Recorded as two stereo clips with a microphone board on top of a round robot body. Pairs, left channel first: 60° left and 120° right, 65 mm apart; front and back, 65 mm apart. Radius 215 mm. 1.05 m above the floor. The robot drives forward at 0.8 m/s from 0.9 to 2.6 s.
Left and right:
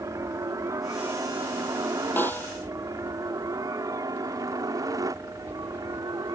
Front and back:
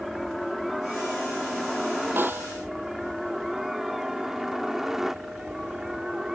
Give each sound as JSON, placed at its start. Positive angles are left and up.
{"t": 0.0, "sound": "a helicopter", "azimuth_deg": -90}
{"t": 2.2, "sound": "a snare drum", "azimuth_deg": 120}